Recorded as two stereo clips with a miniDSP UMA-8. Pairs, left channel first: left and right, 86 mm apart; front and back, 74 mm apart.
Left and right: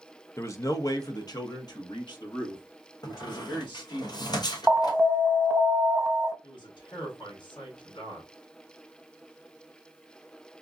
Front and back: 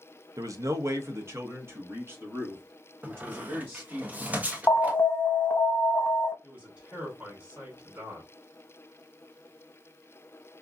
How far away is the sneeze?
No sneeze in this recording.